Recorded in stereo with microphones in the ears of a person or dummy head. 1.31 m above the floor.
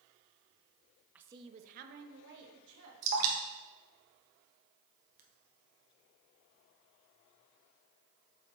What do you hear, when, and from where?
1.1 s a woman speaking: 10° right (ahead or behind), 0.5 m; by 2.9 s 75° right (ahead or behind), 1.5 m
3.0 s dripping: 45° right (ahead or behind), 1.4 m